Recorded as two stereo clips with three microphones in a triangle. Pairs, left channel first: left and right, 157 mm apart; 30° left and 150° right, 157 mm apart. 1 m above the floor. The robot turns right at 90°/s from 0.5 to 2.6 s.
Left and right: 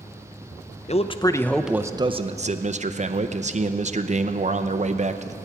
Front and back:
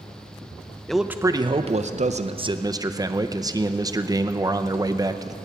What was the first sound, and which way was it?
A man speaking, 115° left.